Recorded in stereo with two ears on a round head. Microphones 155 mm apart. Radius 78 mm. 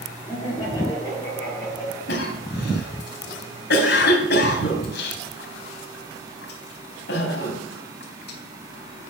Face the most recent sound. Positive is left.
turn(degrees=65)  # may be behind; listen again after turning